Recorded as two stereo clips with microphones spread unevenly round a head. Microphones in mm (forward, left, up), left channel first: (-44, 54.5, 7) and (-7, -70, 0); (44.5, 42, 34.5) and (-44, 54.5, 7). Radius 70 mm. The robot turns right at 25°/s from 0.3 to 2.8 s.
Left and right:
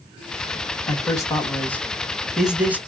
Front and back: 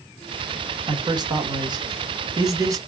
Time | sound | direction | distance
0.9 | a man speaking | 165° left | 1.6 m